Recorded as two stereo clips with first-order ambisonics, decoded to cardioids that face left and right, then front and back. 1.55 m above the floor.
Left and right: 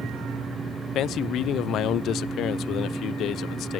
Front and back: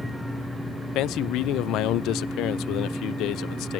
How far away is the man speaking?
About 0.5 m.